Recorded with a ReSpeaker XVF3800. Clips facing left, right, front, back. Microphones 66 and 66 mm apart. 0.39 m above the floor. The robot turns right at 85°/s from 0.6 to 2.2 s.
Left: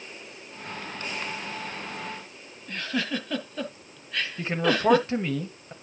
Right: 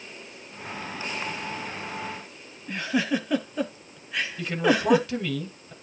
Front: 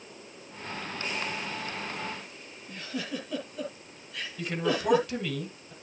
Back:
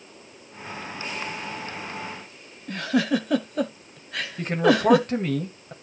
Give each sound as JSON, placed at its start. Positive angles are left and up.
{"t": 2.7, "sound": "a giggle", "azimuth_deg": -165, "distance_m": 1.2}
{"t": 4.4, "sound": "a man speaking", "azimuth_deg": 145, "distance_m": 1.9}